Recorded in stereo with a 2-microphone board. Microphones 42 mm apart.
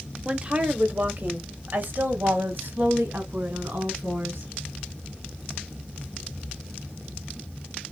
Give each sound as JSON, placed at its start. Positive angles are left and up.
{"t": 0.2, "sound": "a woman speaking", "side_deg": -25, "distance_m": 1.0}